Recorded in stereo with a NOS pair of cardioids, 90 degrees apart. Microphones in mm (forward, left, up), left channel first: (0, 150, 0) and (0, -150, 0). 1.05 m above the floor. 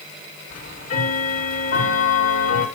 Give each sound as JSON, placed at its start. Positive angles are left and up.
{"t": 0.5, "sound": "ticking", "azimuth_deg": 55, "distance_m": 6.0}